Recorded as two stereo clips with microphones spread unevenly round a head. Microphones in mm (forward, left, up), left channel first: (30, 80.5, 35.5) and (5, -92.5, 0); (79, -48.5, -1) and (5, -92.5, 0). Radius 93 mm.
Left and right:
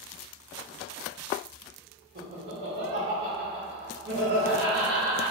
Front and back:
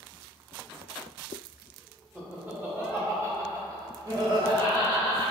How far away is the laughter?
About 1.9 m.